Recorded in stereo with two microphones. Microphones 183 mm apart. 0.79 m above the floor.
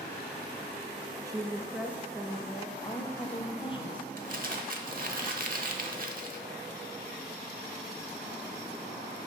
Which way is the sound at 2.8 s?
30° left (ahead or behind).